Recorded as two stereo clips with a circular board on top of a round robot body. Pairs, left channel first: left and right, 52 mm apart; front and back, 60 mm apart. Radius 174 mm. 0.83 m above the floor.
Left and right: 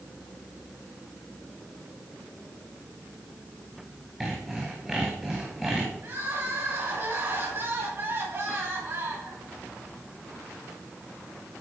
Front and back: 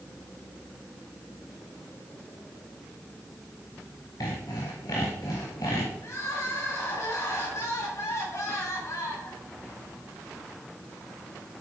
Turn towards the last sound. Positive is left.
turn(degrees=-40)